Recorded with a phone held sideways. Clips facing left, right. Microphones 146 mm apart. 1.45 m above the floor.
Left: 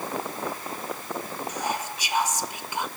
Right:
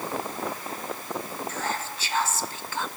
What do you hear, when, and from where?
1.5 s whispering: 15° left (ahead or behind), 0.8 m